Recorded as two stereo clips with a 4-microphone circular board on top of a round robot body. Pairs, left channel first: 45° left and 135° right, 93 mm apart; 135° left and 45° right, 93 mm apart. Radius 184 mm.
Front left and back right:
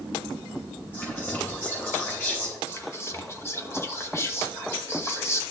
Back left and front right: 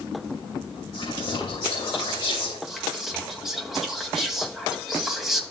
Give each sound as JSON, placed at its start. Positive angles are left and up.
{"t": 0.9, "sound": "whispering", "azimuth_deg": 110, "distance_m": 3.0}
{"t": 2.7, "sound": "whispering", "azimuth_deg": 40, "distance_m": 1.5}